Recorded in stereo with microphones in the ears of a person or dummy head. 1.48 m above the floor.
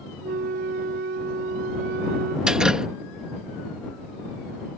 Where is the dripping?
5° right (ahead or behind).